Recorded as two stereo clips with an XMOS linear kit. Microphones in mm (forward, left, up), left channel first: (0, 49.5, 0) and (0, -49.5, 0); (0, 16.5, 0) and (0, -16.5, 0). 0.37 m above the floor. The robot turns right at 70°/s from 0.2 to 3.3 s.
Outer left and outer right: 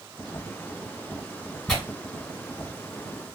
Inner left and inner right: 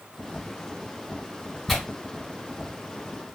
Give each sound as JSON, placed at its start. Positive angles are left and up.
{"t": 1.7, "sound": "tearing paper", "side_deg": 5, "distance_m": 1.5}